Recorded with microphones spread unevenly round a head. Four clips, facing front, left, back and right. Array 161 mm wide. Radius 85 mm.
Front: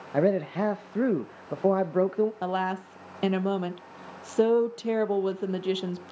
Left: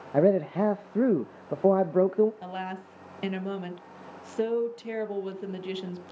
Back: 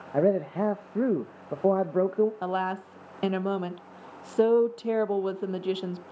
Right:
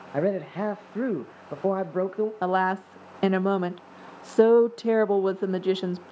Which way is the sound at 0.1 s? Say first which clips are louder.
Left 4 dB, even; 120° left.